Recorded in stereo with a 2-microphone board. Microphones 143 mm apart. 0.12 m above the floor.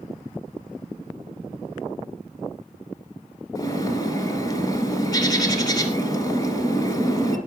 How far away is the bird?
About 1.6 m.